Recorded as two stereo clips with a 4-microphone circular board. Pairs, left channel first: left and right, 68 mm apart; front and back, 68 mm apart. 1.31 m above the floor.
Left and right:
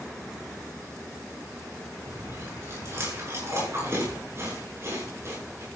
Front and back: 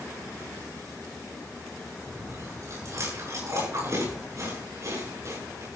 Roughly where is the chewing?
Behind right.